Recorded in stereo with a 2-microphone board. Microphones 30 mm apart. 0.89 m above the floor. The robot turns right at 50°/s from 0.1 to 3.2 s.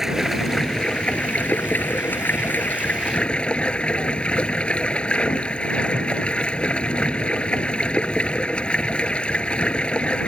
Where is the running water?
10° right; by 10.3 s 145° left.